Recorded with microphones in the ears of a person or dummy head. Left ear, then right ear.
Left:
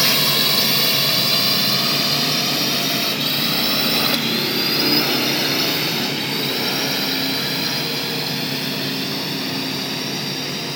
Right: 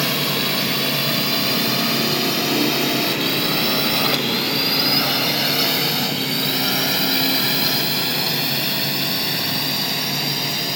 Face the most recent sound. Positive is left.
turn(degrees=-20)  # may be behind; listen again after turning